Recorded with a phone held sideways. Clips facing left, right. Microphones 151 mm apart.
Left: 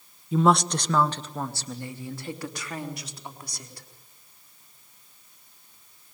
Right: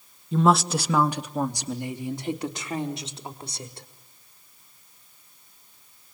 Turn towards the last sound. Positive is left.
turn(degrees=-25)  # may be behind; listen again after turning